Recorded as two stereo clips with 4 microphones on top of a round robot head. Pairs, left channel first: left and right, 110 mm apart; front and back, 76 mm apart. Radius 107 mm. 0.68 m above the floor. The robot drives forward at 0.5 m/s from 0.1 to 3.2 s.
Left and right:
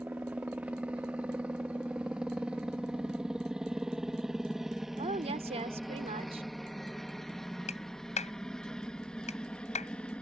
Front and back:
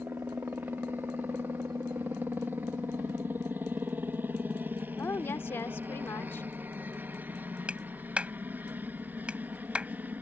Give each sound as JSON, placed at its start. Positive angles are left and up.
{"t": 0.0, "sound": "a helicopter", "azimuth_deg": -150}
{"t": 5.0, "sound": "a woman speaking", "azimuth_deg": -65}
{"t": 7.7, "sound": "a clap", "azimuth_deg": 105}